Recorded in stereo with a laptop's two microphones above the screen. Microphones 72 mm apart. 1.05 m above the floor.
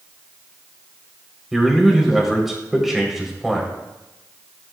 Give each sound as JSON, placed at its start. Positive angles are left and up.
{"t": 1.5, "sound": "a man speaking", "side_deg": -5, "distance_m": 3.0}